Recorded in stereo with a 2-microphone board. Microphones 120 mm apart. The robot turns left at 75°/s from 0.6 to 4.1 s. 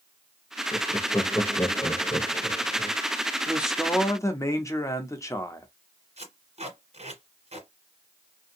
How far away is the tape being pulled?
About 1.5 m.